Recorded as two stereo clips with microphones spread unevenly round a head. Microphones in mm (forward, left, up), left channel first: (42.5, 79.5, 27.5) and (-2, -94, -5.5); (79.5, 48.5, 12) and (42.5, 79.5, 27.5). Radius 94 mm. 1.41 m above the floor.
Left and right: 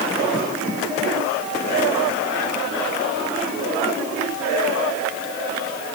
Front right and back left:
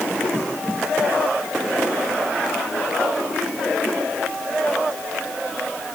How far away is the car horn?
No car horn in this recording.